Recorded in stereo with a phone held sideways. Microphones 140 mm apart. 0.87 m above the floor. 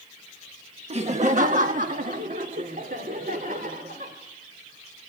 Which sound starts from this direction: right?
Laughter, at 0.9 s.